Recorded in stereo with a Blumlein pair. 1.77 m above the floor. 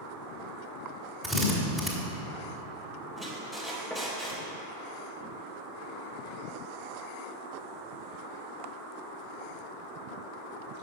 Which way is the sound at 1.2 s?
5° right.